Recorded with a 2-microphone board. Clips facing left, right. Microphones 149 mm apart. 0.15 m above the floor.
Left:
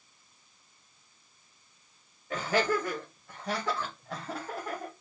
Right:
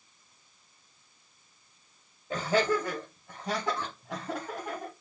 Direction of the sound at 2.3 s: 20° right (ahead or behind).